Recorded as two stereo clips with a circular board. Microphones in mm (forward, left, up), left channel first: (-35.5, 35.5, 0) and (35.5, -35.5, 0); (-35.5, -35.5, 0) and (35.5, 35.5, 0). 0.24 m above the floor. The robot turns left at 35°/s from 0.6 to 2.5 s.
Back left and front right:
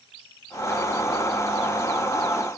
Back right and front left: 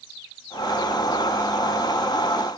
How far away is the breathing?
No breathing in this recording.